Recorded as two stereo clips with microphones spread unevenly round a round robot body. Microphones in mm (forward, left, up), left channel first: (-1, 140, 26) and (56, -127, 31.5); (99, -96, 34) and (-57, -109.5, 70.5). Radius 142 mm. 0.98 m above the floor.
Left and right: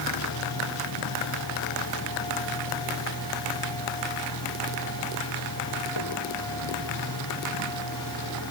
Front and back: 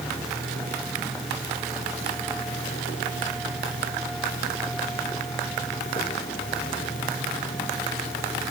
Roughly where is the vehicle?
Left.